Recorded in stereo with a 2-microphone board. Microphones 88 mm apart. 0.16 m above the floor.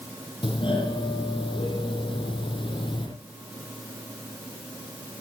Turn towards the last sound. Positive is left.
turn(degrees=75)  # may be behind; listen again after turning